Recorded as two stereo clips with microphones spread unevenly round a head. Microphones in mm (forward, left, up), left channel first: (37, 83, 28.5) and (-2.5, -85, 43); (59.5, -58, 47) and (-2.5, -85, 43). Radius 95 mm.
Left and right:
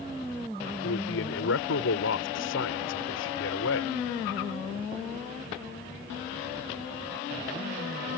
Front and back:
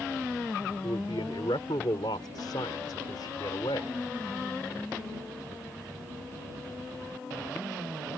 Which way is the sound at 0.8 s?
75° left.